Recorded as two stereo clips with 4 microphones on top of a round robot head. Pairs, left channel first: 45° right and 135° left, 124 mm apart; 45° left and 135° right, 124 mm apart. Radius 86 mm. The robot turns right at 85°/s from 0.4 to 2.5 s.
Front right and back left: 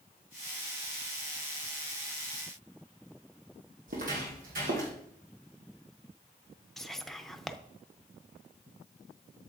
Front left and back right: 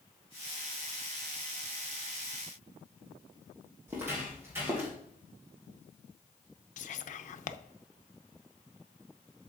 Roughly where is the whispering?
Ahead left.